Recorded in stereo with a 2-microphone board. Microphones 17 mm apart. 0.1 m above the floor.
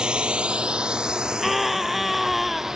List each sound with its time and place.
0.0 s a drone: 50° right (ahead or behind); by 2.8 s 30° right (ahead or behind)
1.4 s a scream: 5° right (ahead or behind)